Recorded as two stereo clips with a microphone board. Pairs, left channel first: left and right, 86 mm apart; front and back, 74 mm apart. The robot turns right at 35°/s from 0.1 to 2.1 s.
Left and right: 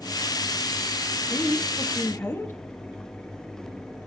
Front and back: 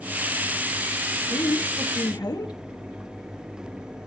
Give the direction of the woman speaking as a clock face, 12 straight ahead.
12 o'clock.